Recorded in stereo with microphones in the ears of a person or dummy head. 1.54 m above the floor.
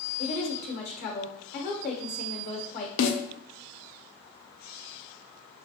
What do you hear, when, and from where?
0.2 s a woman speaking: 55° left (ahead or behind), 1.0 m
3.0 s a snare drum: 65° left (ahead or behind), 0.7 m